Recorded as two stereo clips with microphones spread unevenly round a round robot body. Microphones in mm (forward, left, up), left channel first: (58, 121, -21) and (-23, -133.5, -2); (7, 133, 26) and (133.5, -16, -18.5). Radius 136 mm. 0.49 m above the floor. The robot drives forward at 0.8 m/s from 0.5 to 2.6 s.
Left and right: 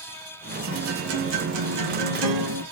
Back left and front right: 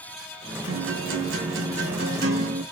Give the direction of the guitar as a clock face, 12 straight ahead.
2 o'clock.